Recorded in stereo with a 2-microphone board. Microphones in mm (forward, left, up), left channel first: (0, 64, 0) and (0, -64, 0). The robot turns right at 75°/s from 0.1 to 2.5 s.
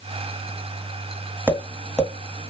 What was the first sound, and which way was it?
Tapping, 10° right (ahead or behind).